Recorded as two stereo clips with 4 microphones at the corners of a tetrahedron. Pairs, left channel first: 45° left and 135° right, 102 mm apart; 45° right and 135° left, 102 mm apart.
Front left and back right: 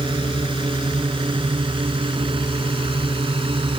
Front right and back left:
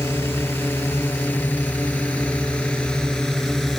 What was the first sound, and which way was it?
A drone, 110° right.